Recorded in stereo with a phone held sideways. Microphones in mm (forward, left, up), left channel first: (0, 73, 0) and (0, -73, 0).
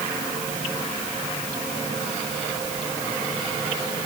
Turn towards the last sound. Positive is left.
No sound to turn to.